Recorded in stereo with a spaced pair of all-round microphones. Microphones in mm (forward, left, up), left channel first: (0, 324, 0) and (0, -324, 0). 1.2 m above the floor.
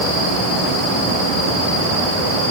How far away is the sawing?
I don't hear sawing.